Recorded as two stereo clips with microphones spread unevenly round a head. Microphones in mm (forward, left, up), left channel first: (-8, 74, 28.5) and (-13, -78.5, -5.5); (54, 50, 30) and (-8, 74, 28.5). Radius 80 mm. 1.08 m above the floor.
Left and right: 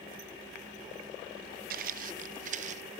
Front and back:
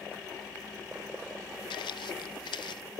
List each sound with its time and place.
1.7 s footsteps: 55° right; by 2.8 s 40° right